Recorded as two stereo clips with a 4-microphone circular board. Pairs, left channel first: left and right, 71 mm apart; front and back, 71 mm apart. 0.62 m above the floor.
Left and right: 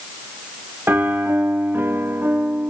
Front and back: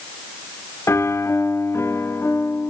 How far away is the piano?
About 0.7 m.